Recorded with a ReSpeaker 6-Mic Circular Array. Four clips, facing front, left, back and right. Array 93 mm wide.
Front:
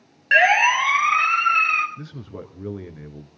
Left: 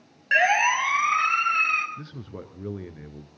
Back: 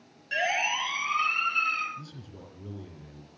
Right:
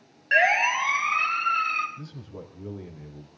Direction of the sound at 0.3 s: 5° left.